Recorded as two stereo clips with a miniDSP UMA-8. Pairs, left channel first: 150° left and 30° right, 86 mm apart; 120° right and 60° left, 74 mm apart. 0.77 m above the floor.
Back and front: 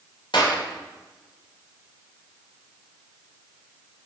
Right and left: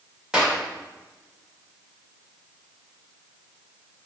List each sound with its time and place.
0.3 s a clap: 140° left, 2 m